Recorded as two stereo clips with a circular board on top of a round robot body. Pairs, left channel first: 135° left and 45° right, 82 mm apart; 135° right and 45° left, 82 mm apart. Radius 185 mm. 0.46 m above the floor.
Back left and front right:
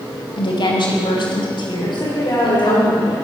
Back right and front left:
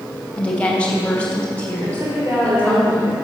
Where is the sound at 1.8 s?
100° left, 2.5 m.